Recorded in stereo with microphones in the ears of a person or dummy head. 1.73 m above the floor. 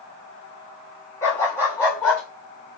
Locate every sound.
1.2 s a dog barking: 15° left (ahead or behind), 5 m; by 2.2 s 10° left (ahead or behind), 5.5 m